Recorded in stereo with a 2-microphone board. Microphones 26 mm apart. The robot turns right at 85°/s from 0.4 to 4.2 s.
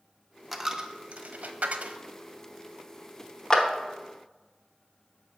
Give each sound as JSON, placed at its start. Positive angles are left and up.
{"t": 0.5, "sound": "a dropped coin", "side_deg": -5, "distance_m": 0.5}
{"t": 3.5, "sound": "a clap", "side_deg": 20, "distance_m": 0.8}